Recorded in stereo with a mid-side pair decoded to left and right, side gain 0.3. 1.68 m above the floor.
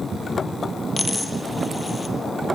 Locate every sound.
1.0 s a dropped coin: 25° left, 6 m